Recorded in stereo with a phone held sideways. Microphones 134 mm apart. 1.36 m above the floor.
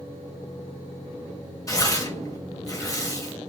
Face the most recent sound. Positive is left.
turn(degrees=25)  # may be behind; listen again after turning